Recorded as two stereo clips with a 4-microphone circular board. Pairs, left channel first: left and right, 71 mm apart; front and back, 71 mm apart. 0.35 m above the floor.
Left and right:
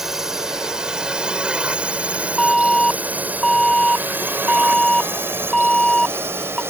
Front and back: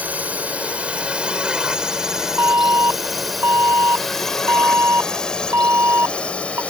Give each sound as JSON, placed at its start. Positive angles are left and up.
{"t": 0.0, "sound": "a drone", "azimuth_deg": -165}
{"t": 2.4, "sound": "an alarm", "azimuth_deg": 170}